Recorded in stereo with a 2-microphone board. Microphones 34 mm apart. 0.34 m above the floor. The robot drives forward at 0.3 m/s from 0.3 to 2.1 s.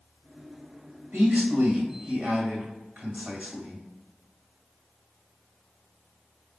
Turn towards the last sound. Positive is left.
turn(degrees=-45)  # may be behind; listen again after turning